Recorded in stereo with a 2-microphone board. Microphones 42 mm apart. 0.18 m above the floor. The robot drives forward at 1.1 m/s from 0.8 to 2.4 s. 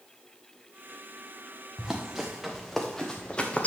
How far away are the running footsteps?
About 1.9 m.